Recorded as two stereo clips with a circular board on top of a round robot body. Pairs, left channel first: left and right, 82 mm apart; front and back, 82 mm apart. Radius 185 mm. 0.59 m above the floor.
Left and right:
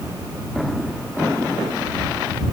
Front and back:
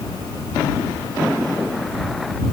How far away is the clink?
I don't hear a clink.